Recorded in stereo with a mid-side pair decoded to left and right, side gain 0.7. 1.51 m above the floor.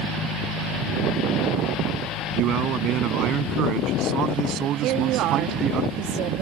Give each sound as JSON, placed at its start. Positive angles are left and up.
{"t": 2.3, "sound": "a man speaking", "azimuth_deg": -50}
{"t": 4.8, "sound": "a woman speaking", "azimuth_deg": -55}